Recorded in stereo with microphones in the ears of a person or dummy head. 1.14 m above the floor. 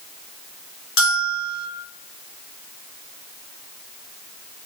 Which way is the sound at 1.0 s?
75° left (ahead or behind).